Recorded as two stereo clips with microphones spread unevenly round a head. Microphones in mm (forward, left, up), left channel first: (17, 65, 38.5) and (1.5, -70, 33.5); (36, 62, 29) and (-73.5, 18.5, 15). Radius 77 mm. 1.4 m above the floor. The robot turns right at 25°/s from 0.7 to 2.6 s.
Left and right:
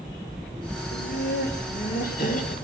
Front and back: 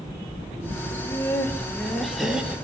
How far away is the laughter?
About 3 m.